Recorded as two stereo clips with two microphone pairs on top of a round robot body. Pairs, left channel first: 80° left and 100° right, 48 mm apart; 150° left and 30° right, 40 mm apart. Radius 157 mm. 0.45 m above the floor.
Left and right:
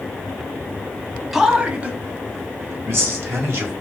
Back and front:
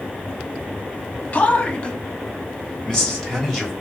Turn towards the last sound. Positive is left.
turn(degrees=-125)